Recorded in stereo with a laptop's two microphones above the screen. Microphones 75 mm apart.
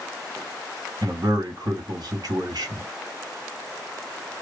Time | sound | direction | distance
1.0 | a man speaking | 65° right (ahead or behind) | 2 m